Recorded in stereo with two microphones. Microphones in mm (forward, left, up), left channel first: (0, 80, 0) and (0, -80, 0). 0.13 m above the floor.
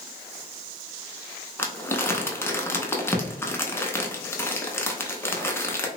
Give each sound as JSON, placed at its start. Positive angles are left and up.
{"t": 1.6, "sound": "crumpling", "side_deg": 15, "distance_m": 0.6}